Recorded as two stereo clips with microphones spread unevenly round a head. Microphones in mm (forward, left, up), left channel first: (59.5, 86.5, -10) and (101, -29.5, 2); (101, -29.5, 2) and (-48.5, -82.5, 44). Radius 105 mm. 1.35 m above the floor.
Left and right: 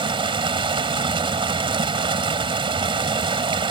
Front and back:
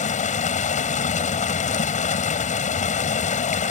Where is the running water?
25° right.